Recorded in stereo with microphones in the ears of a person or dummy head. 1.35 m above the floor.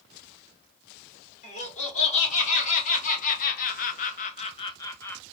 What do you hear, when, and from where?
1.4 s laughter: 40° left (ahead or behind), 1.6 m; by 5.2 s 5° left (ahead or behind), 0.7 m